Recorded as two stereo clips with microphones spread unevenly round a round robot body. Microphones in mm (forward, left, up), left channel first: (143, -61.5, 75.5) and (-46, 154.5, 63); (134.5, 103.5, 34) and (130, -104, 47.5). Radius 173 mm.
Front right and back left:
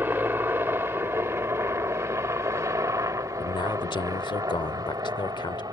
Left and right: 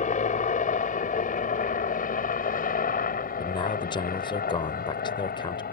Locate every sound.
0.0 s a helicopter: 50° left; by 5.7 s 55° left
3.4 s a man speaking: 25° left